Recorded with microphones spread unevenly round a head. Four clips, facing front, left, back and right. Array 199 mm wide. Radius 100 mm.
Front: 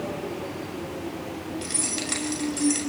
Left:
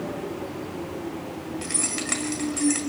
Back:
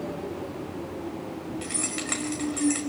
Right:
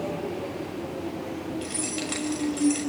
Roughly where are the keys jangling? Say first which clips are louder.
Even, front 1 dB; behind left.